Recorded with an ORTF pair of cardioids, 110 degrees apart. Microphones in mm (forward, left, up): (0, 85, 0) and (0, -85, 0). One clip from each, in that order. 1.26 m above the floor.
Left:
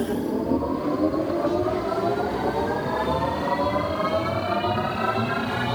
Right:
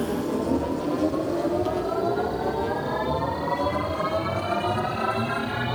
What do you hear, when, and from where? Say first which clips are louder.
0.0 s a machine running: left 1 dB; 10° left, 1.7 m